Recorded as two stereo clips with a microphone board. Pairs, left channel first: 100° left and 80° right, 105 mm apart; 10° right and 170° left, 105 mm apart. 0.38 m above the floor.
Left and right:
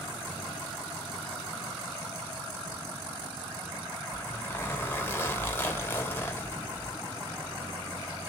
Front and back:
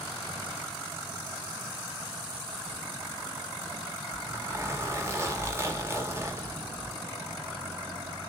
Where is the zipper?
145° left, 1.2 m.